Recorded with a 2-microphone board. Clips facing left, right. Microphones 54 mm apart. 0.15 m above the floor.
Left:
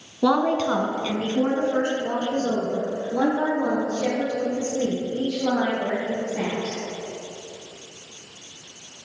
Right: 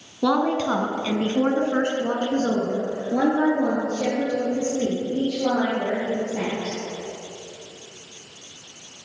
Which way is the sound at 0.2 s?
5° left (ahead or behind).